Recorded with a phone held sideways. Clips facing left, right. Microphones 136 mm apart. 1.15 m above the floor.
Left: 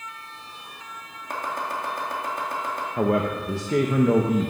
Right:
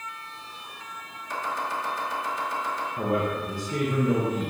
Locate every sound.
1.3 s chopping: 55° left (ahead or behind), 2.5 m
3.0 s a man speaking: 80° left, 1.0 m